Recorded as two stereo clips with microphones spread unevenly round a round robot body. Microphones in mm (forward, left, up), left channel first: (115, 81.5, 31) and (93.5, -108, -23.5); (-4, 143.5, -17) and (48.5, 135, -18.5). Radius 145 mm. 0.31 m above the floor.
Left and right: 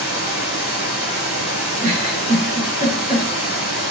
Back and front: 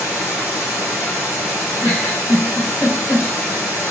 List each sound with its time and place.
0.0 s running water: 140° right, 3 m
1.8 s a giggle: 150° right, 1.2 m